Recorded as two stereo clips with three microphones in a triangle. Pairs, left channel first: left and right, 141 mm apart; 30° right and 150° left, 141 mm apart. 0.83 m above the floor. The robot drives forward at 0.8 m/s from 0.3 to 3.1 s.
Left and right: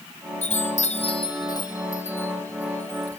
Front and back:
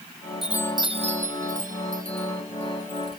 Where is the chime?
65° left; by 3.2 s 170° left.